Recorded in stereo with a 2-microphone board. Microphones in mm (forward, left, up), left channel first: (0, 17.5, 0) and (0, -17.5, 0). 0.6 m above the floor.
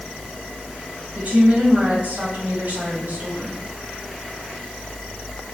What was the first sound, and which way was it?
A woman speaking, 45° right (ahead or behind).